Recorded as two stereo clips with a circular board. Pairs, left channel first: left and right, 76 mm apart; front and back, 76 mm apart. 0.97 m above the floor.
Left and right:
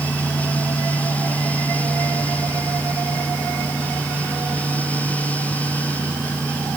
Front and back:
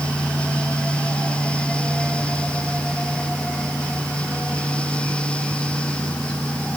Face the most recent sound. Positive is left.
No sound to turn to.